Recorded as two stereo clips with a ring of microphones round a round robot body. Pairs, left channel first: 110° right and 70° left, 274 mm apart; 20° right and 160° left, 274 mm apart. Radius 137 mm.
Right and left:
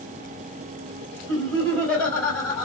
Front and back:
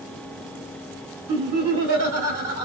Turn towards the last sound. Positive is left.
turn(degrees=160)